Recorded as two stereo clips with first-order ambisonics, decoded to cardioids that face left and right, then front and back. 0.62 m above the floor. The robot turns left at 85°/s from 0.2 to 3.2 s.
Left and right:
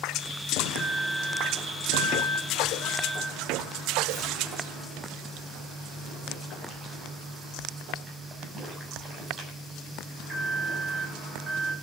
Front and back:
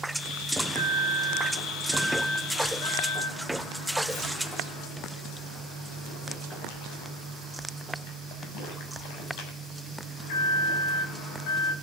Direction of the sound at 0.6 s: 150° right.